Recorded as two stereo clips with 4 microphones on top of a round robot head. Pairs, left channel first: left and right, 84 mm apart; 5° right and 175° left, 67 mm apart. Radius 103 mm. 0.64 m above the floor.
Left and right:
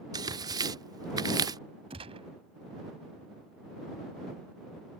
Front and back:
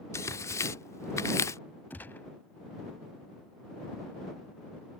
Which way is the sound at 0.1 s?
50° right.